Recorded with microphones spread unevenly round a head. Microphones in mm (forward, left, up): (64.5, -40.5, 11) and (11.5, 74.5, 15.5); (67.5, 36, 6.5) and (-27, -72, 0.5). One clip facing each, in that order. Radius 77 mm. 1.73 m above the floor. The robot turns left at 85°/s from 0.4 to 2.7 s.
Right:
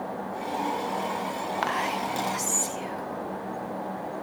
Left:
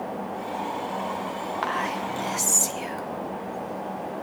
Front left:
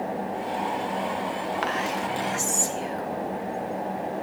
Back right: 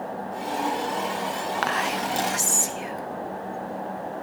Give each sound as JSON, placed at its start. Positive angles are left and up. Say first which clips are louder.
{"t": 1.6, "sound": "whispering", "louder": "even, back right 1 dB", "azimuth_deg": -110, "distance_m": 1.0}